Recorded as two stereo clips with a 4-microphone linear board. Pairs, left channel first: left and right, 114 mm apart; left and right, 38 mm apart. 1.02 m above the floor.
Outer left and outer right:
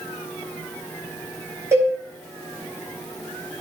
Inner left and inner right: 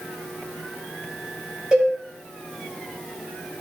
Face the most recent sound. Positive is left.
turn(degrees=-25)  # may be behind; listen again after turning